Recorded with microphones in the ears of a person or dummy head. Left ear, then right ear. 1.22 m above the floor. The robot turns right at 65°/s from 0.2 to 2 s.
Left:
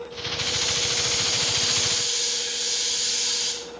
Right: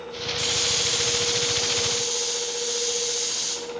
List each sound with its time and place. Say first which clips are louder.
0.4 s a hiss: right 1 dB; 45° right, 2.5 m; by 3.5 s 60° left, 2.5 m